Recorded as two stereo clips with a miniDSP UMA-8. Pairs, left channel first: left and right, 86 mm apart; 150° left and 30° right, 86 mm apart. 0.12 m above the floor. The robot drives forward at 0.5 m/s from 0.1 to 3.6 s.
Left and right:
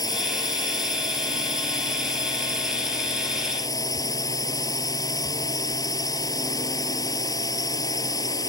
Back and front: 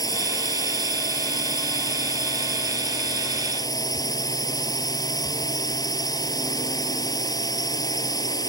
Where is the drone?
120° left.